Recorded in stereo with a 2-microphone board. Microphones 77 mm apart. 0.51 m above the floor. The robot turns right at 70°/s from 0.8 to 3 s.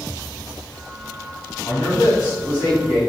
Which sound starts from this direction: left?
A man speaking, at 1.6 s.